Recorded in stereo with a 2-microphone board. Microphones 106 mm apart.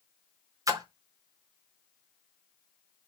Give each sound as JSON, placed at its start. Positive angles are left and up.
{"t": 0.7, "sound": "a splash", "side_deg": -30, "distance_m": 0.7}